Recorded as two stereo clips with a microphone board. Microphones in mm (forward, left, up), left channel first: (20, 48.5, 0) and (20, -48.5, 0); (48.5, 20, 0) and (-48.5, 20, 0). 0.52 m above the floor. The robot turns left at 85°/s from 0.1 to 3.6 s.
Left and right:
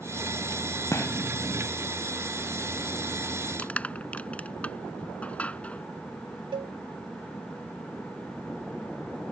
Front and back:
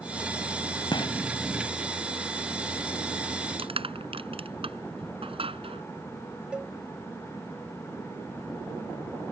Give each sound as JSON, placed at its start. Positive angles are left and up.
{"t": 0.9, "sound": "a gunshot", "azimuth_deg": 35}
{"t": 3.6, "sound": "crushing", "azimuth_deg": 170}
{"t": 6.5, "sound": "a cowbell", "azimuth_deg": -100}